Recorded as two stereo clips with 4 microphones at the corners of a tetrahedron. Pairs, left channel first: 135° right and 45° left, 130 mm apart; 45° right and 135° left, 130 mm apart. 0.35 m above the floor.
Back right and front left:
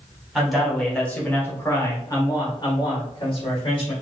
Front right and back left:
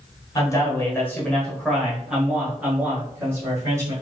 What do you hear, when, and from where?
0.3 s a man speaking: 40° right, 1.3 m; by 3.9 s 165° right, 1.8 m